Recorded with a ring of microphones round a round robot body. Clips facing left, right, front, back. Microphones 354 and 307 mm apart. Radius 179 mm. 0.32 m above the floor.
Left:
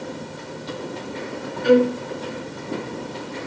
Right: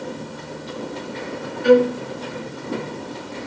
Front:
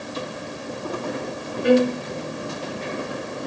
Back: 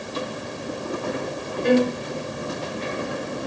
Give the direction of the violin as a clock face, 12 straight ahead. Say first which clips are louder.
Right 2 dB, front 2 dB; 3 o'clock.